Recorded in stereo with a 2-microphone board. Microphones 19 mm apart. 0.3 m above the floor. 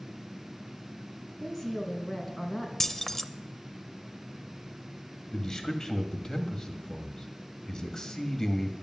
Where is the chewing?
I don't hear chewing.